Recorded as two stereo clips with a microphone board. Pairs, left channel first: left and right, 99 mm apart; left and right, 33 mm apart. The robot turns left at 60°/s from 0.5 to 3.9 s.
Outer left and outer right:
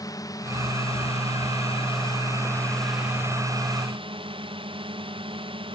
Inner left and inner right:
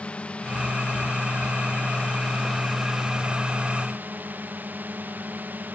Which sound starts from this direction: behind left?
A drone, at 0.0 s.